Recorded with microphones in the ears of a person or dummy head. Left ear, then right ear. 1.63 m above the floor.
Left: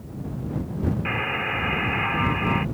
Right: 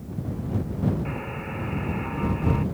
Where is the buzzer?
65° left (ahead or behind).